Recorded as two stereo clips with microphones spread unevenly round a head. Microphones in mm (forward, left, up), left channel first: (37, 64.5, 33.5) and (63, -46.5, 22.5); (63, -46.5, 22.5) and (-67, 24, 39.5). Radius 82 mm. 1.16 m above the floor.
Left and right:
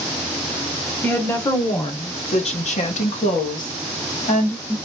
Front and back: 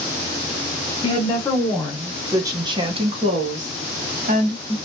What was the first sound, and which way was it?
A woman speaking, 35° left.